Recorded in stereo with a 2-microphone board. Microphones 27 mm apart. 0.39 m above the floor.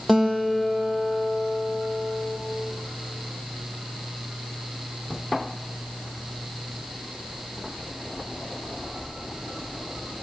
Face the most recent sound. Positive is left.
turn(degrees=5)  # may be behind; listen again after turning